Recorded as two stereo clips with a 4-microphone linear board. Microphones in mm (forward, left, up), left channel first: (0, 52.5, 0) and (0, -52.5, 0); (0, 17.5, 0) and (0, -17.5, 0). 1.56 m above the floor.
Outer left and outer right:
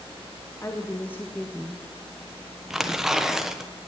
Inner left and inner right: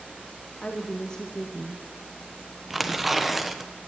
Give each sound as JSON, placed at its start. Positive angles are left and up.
{"t": 0.6, "sound": "a woman speaking", "side_deg": 25, "distance_m": 1.3}
{"t": 2.7, "sound": "tearing paper", "side_deg": -5, "distance_m": 1.1}